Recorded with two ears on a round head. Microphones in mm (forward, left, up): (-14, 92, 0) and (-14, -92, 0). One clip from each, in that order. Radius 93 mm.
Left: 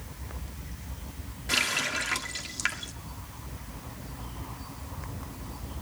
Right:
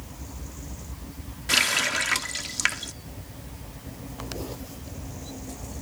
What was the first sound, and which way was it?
A running tap, 25° right (ahead or behind).